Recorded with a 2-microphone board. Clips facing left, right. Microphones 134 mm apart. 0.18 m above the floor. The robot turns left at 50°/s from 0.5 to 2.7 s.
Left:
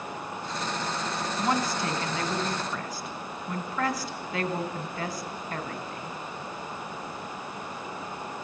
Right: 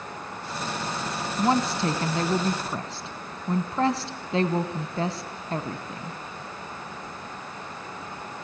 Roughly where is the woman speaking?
Right.